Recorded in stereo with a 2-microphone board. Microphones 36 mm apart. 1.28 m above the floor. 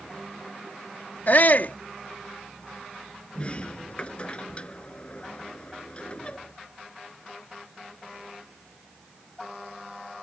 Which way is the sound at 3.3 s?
30° left (ahead or behind).